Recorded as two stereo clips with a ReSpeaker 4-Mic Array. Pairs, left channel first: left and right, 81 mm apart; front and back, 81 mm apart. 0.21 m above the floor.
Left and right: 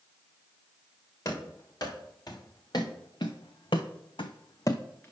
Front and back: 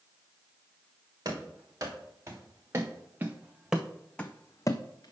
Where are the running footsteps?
135° left, 2 m; by 5.1 s 25° left, 0.7 m.